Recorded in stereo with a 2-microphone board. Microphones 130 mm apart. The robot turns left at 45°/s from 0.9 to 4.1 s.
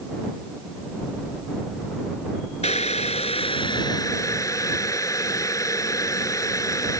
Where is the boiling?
100° left; by 7.0 s 30° left.